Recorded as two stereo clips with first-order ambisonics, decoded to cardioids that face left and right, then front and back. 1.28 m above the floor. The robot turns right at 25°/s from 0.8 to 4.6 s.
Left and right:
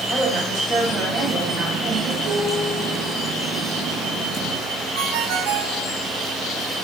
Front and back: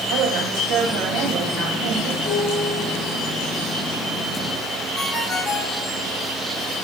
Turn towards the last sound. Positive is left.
turn(degrees=-85)